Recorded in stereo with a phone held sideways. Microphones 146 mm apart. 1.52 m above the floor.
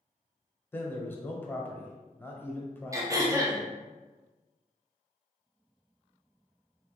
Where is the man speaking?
15° left (ahead or behind), 0.7 m.